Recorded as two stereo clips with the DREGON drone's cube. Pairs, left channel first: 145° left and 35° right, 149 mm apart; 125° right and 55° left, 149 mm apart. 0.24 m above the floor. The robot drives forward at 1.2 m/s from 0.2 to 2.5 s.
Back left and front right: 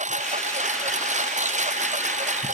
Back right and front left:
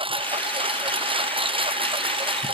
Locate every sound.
0.0 s a lawn mower: straight ahead